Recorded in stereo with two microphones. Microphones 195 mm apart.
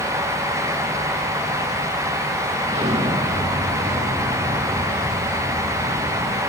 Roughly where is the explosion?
Right.